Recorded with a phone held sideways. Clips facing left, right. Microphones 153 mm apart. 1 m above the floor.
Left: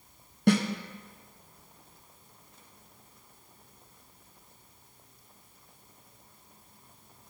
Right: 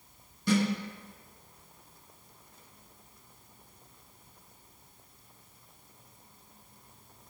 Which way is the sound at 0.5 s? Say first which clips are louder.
Left 3 dB; 65° left (ahead or behind).